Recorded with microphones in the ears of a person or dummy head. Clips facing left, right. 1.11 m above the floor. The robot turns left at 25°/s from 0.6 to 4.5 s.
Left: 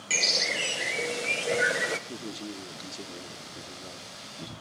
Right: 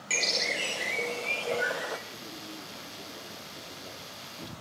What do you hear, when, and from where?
0.1 s a bird: straight behind, 0.7 m; by 2.0 s 145° left, 0.7 m
2.1 s a man speaking: 65° left, 2 m; by 4.5 s 5° left, 2 m